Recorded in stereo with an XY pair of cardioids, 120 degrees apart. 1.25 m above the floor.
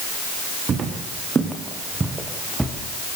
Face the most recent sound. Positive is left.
turn(degrees=-5)